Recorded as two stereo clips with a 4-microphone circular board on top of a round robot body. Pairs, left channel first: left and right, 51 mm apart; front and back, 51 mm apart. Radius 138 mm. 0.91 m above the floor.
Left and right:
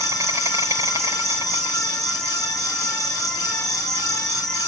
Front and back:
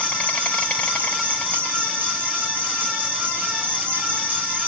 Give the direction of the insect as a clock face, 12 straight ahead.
2 o'clock.